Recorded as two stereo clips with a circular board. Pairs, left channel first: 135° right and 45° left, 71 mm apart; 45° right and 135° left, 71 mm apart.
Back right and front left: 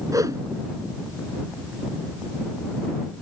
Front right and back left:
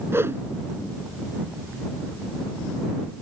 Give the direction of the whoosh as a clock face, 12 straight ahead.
9 o'clock.